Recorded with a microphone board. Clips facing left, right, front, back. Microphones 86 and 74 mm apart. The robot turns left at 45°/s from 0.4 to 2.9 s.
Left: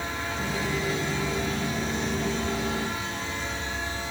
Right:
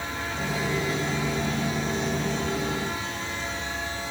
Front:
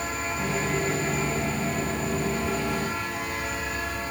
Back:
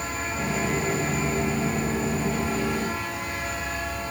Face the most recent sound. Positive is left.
No sound to turn to.